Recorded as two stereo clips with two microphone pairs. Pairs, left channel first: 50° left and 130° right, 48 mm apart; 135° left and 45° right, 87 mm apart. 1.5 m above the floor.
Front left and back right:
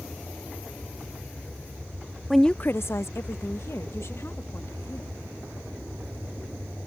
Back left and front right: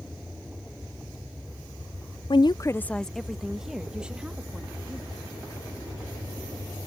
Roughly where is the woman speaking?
Behind left.